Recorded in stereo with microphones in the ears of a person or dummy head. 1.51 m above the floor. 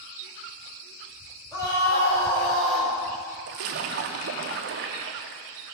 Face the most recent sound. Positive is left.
turn(degrees=-40)  # may be behind; listen again after turning